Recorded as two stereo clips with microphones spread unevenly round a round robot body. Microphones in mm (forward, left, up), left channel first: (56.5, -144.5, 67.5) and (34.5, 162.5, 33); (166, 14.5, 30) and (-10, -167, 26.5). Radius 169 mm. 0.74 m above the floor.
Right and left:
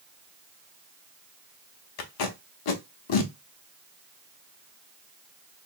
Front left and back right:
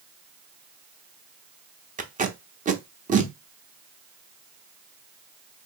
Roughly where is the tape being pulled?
Right.